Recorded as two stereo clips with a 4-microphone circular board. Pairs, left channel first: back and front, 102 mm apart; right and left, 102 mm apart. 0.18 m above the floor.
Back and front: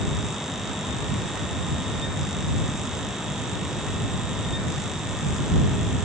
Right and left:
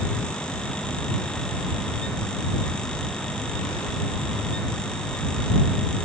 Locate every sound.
Only background noise.